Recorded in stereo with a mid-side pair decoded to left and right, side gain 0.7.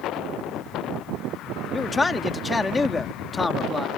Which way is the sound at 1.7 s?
20° left.